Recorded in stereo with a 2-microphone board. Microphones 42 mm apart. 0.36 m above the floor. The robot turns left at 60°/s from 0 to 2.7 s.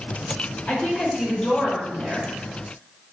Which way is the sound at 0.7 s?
80° left.